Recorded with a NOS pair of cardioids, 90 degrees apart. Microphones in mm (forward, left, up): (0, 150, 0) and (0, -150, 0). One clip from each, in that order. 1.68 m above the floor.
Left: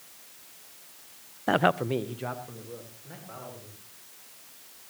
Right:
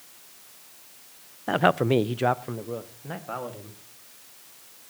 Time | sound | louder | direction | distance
1.5 | a man speaking | right 3 dB | 20° left | 0.5 m